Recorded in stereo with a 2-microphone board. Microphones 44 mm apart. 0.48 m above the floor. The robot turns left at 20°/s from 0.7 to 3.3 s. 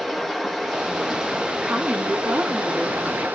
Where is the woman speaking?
50° right, 6.5 m; by 3.2 s 80° right, 6.5 m.